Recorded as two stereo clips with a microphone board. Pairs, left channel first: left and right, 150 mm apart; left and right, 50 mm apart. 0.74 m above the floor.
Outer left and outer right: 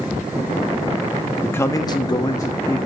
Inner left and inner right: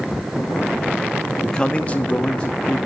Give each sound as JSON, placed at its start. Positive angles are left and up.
{"t": 1.4, "sound": "a man speaking", "side_deg": 15, "distance_m": 1.0}